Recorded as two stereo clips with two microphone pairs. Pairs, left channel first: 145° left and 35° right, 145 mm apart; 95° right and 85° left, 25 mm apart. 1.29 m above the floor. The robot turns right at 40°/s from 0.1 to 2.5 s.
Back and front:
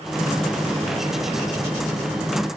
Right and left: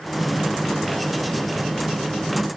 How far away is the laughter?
I don't hear laughter.